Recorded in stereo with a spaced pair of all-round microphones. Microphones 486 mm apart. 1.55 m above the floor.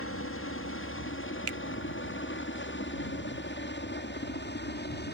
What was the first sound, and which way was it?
A helicopter, 25° left (ahead or behind).